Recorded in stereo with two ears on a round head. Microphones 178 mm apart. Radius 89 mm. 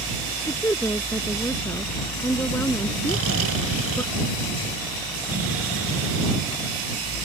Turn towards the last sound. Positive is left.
turn(degrees=-80)